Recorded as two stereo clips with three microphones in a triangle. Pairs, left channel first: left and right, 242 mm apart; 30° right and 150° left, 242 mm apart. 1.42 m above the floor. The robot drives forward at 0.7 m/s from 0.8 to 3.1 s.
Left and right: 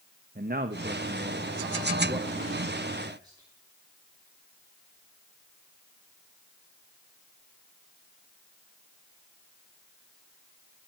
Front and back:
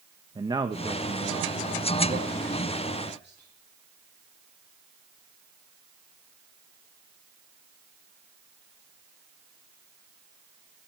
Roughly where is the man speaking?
Behind right.